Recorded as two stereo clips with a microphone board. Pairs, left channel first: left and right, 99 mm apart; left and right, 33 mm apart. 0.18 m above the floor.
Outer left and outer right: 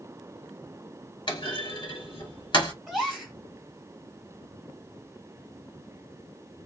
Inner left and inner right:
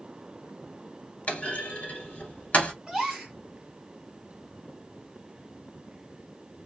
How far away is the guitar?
I don't hear a guitar.